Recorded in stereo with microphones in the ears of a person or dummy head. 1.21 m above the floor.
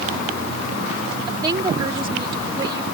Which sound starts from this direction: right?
A woman speaking, at 1.3 s.